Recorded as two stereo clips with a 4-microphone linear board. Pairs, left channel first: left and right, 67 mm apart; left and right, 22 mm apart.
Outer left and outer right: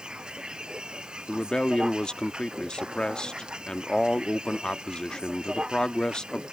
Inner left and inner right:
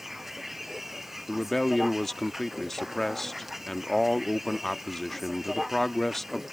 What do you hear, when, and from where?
0.0 s a vehicle: 15° right (ahead or behind)
1.3 s a man speaking: 10° left (ahead or behind)